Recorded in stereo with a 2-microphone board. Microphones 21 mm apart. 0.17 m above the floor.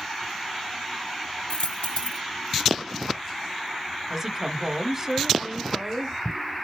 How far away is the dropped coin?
About 2 m.